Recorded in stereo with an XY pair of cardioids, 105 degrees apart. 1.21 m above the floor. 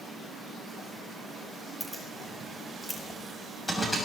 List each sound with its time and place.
1.8 s keys jangling: 5° left, 3 m; by 4.0 s straight ahead, 6 m